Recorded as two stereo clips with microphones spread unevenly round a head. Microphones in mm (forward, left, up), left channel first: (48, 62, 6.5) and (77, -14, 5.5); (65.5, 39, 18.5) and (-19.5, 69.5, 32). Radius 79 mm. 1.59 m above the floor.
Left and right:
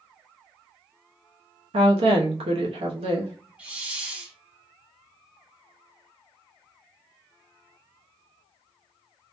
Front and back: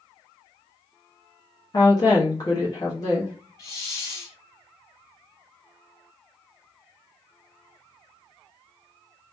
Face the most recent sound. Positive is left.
turn(degrees=-20)